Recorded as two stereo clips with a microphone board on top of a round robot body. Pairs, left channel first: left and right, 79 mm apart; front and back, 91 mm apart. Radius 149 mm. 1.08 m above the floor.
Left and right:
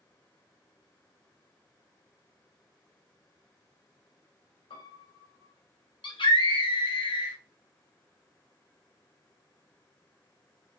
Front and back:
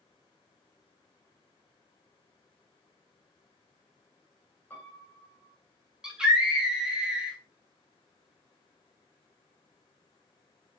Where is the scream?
95° left, 3 m.